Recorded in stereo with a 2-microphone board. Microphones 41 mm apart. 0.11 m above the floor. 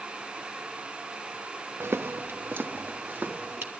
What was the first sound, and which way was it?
Footsteps, 75° right (ahead or behind).